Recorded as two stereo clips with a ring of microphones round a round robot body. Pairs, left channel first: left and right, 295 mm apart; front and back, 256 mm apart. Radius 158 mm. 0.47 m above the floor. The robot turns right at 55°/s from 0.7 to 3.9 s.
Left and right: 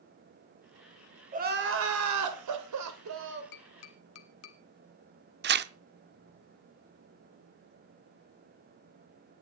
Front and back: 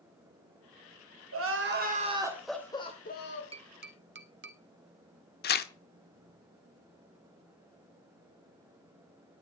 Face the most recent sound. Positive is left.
turn(degrees=-45)